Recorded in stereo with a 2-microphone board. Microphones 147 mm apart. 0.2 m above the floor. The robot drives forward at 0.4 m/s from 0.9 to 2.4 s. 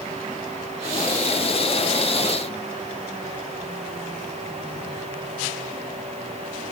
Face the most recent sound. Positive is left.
No sound to turn to.